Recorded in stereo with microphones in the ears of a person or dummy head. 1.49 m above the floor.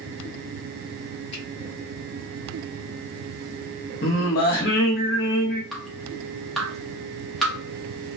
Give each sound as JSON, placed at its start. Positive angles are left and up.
{"t": 1.3, "sound": "a finger snap", "side_deg": 35, "distance_m": 1.5}
{"t": 4.0, "sound": "singing", "side_deg": 50, "distance_m": 1.2}
{"t": 5.7, "sound": "dripping", "side_deg": 0, "distance_m": 0.8}